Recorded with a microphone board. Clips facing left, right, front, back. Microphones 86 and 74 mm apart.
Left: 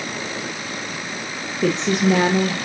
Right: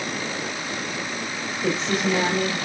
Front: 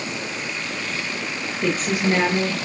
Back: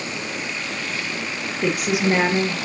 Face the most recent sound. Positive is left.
turn(degrees=105)